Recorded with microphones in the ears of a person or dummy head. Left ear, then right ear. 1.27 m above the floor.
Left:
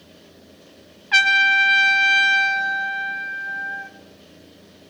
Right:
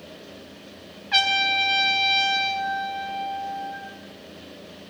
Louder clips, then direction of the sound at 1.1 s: Left 5 dB; 25° left (ahead or behind).